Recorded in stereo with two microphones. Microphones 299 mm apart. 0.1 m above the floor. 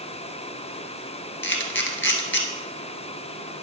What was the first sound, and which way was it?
A camera shutter, 40° left (ahead or behind).